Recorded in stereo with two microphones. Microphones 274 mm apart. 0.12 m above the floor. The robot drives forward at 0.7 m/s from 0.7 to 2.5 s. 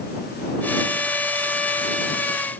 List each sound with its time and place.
Only background noise.